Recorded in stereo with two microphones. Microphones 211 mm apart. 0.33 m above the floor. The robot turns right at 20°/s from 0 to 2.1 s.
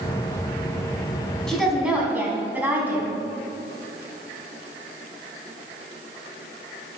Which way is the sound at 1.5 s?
Centre (ahead or behind).